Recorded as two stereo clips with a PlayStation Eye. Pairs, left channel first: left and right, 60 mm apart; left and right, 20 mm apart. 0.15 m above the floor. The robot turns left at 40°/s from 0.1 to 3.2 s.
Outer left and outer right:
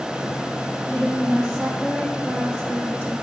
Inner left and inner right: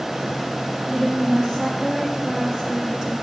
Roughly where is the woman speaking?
Ahead right.